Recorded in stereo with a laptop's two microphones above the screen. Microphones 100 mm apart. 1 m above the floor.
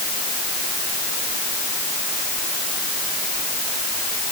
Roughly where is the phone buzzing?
I don't hear a phone buzzing.